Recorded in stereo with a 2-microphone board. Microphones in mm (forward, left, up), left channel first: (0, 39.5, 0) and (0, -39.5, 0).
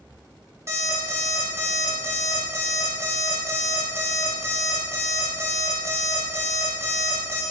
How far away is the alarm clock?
About 0.9 m.